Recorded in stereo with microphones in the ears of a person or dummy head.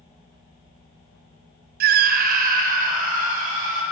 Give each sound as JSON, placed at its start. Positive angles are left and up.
{"t": 1.8, "sound": "a scream", "side_deg": -55, "distance_m": 0.6}